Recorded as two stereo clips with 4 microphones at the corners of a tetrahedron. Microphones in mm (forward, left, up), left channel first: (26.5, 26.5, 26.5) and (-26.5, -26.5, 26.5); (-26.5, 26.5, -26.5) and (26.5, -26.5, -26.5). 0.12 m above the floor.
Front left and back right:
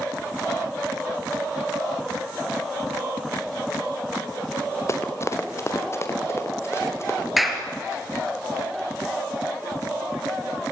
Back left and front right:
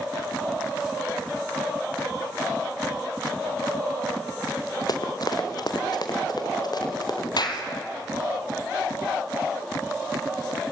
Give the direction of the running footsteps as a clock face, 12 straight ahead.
9 o'clock.